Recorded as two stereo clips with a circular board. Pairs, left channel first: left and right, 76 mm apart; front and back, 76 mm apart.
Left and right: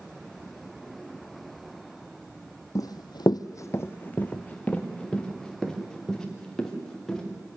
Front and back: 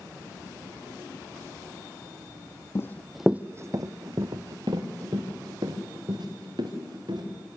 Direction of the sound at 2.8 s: 55° left.